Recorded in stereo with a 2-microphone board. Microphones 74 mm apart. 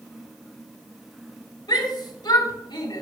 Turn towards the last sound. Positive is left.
turn(degrees=70)  # may be behind; listen again after turning